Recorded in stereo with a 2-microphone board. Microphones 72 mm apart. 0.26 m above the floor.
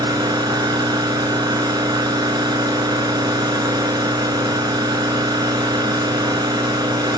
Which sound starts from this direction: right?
An engine running, at 0.0 s.